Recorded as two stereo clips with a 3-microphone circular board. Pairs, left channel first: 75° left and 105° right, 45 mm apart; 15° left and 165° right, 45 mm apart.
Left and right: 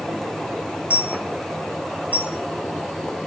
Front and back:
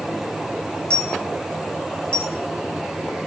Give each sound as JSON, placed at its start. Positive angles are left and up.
{"t": 0.9, "sound": "a dropped coin", "azimuth_deg": -55, "distance_m": 1.2}